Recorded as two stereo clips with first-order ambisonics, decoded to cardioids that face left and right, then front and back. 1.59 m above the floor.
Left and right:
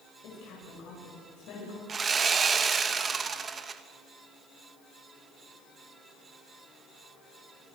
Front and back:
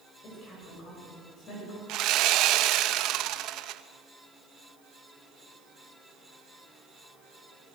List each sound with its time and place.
0.2 s a woman speaking: 55° left, 9 m
1.9 s sawing: 155° right, 1.1 m